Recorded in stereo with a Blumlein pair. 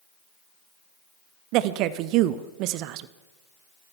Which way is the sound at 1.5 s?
40° right.